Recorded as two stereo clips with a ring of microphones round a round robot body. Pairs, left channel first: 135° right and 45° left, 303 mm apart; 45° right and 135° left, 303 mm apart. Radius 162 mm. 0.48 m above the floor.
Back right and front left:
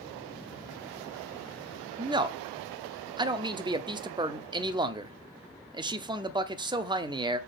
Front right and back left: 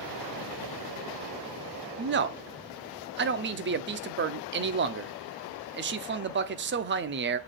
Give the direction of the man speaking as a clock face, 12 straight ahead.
8 o'clock.